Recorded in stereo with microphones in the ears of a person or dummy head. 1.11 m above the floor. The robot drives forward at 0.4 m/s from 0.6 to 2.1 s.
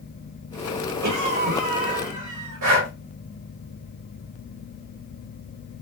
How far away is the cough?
About 1.3 m.